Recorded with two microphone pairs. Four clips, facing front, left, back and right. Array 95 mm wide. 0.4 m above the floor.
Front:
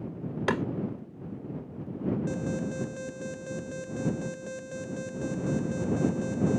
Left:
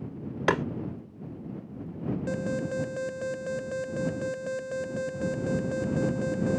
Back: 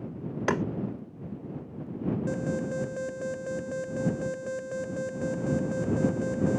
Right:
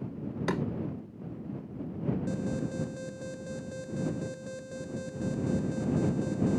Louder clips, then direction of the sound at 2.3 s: Left 3 dB, back 2 dB; 120° left.